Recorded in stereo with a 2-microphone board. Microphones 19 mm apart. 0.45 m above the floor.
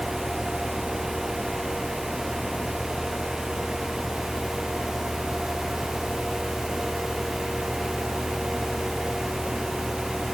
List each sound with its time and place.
Only background noise.